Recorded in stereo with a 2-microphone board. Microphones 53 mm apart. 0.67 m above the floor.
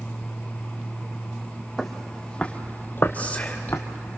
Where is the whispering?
25° left (ahead or behind), 3 m.